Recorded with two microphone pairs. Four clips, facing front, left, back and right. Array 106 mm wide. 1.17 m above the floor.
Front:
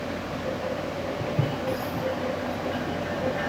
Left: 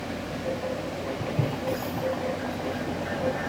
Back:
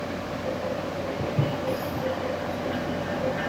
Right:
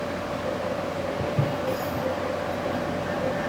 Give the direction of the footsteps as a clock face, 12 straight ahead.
4 o'clock.